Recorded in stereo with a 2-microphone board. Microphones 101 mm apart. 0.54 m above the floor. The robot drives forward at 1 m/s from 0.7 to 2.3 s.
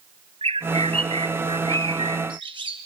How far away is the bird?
About 2.5 m.